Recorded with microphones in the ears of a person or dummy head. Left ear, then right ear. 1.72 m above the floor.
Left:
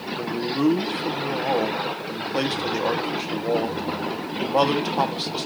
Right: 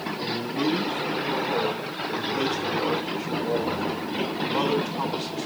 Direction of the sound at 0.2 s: 50° left (ahead or behind).